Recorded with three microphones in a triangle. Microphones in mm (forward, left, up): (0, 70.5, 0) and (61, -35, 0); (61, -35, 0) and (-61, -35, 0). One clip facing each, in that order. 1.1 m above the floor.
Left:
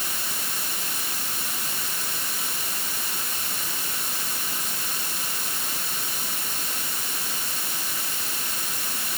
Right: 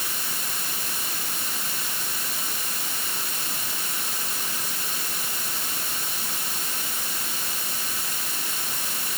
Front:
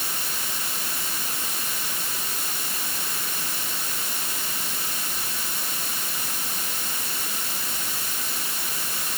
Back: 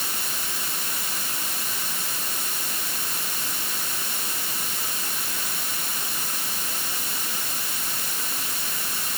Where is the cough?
No cough in this recording.